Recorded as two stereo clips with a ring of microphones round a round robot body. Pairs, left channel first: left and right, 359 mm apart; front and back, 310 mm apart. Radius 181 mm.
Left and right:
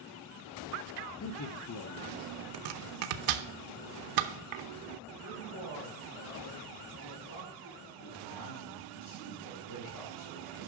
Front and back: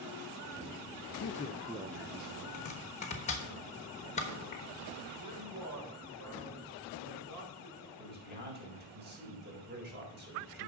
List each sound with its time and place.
1.2 s a man speaking: 45° left, 0.6 m; by 2.4 s 145° left, 0.8 m
2.5 s chopping: 70° right, 0.9 m
5.2 s a man speaking: 145° left, 4 m
8.0 s a man speaking: 120° left, 4 m